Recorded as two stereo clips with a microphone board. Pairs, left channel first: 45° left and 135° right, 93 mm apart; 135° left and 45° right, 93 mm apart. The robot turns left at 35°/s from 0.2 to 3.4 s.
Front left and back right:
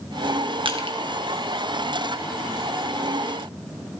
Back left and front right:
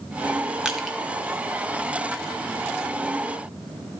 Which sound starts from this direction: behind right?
Crushing, at 0.7 s.